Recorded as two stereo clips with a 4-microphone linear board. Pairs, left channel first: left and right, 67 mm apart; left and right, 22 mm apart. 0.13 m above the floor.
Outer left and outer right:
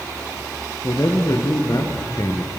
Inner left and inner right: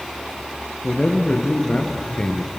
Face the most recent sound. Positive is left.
turn(degrees=55)  # may be behind; listen again after turning